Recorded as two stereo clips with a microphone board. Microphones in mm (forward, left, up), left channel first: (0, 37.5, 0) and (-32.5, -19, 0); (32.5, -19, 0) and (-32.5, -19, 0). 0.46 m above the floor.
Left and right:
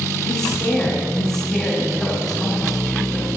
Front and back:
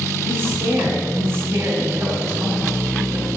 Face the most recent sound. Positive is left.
turn(degrees=145)